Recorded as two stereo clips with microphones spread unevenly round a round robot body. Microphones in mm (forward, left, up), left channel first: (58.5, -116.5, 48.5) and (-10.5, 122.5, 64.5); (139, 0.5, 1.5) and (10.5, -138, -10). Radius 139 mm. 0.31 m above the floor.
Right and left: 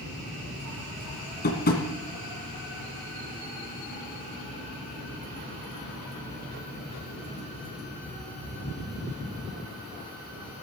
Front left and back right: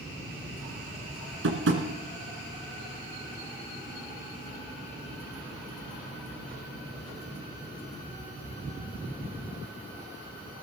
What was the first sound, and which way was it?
Tapping, 130° right.